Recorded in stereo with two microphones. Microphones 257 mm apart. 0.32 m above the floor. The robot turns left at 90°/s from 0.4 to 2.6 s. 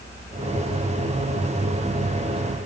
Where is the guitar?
No guitar in this recording.